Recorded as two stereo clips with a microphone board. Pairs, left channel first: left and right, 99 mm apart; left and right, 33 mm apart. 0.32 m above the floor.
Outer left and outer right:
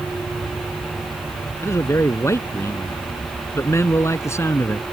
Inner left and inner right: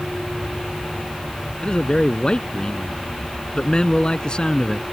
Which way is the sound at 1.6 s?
30° left (ahead or behind).